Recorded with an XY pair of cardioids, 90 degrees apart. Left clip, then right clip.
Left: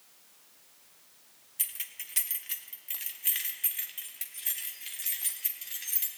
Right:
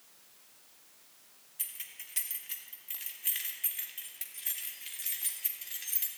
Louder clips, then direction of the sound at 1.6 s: Left 5 dB; 45° left.